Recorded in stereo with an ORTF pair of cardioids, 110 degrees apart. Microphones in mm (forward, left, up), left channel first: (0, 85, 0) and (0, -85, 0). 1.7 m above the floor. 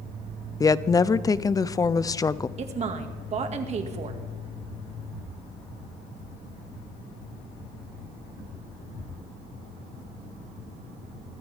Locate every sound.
0.6 s a woman speaking: 20° left, 0.6 m
2.6 s a woman speaking: 40° right, 2 m